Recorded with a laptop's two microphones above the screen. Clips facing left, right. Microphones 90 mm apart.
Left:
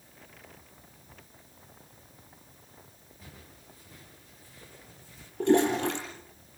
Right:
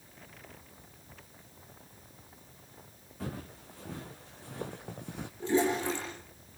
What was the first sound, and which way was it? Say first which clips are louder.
Footsteps: right 12 dB; 75° right (ahead or behind).